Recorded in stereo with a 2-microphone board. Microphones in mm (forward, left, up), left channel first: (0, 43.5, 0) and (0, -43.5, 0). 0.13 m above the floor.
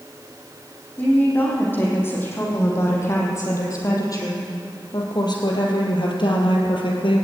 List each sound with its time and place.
1.0 s a woman speaking: 20° left (ahead or behind), 6.5 m; by 7.2 s 65° left (ahead or behind), 3.5 m